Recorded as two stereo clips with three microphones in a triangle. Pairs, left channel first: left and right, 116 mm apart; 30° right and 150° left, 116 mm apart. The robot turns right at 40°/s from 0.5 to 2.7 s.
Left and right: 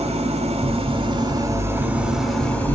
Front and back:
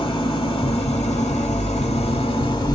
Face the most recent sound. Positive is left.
turn(degrees=15)